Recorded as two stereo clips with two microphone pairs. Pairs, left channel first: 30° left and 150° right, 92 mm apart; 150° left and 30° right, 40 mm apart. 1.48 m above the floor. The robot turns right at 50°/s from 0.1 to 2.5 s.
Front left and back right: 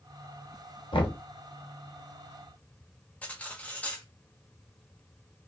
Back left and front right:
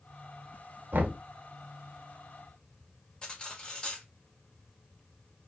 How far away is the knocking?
About 0.7 m.